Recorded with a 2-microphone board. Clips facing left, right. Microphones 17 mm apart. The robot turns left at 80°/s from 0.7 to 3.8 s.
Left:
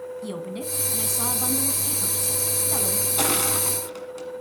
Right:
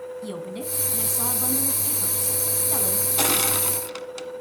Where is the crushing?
30° right (ahead or behind), 1.5 m; by 4.4 s 55° right (ahead or behind), 1.5 m.